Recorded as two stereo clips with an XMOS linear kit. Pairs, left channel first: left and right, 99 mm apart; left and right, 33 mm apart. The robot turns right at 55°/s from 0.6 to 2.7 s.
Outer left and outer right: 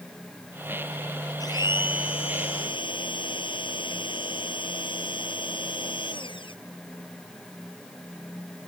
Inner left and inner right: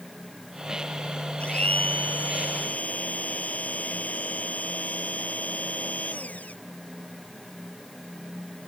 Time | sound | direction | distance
1.4 | a blender | 45° left | ?